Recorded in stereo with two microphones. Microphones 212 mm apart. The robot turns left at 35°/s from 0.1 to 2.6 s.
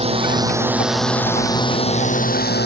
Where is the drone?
150° right; by 2.7 s 125° left.